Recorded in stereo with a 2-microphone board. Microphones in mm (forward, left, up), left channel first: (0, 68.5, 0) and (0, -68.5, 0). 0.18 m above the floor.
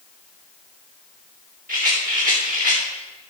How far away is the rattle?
About 4 m.